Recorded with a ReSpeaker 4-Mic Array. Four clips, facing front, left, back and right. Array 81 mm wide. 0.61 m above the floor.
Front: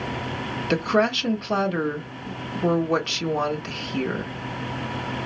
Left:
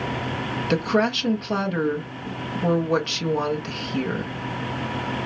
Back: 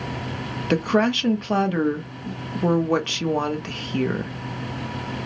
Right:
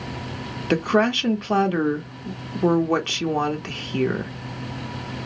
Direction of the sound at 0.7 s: 125° right.